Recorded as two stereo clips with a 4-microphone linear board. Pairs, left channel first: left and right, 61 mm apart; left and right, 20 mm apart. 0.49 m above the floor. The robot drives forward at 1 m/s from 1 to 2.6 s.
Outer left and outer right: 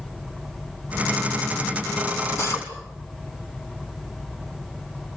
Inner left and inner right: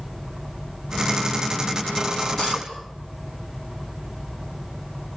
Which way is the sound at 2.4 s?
50° left (ahead or behind).